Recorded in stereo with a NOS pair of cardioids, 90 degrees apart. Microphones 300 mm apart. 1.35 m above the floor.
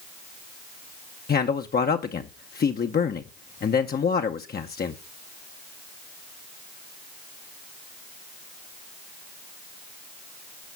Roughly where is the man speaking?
Ahead left.